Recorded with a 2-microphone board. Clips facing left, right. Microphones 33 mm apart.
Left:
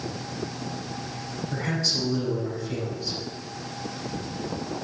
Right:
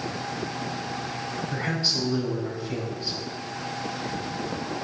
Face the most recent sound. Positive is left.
turn(degrees=-25)  # may be behind; listen again after turning